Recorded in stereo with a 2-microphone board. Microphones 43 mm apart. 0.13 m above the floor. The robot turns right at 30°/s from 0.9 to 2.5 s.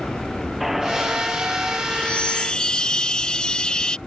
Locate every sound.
0.6 s a squeak: 5° right (ahead or behind); by 1.8 s 30° right (ahead or behind)
1.9 s a chime: 25° left (ahead or behind); by 4.0 s 20° left (ahead or behind)